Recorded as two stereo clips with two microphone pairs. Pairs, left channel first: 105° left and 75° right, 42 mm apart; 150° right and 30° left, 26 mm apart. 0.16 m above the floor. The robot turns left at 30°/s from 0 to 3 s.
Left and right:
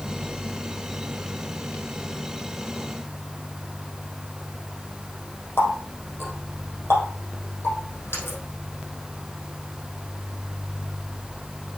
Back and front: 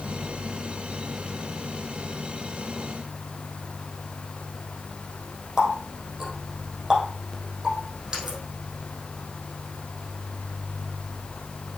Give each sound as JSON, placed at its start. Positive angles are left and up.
{"t": 5.6, "sound": "a running tap", "azimuth_deg": 105, "distance_m": 3.5}